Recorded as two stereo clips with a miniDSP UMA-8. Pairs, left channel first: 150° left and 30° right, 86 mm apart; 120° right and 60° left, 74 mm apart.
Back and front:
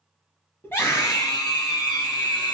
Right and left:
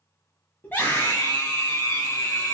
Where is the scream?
170° right, 1.1 m; by 2.5 s 175° right, 2 m.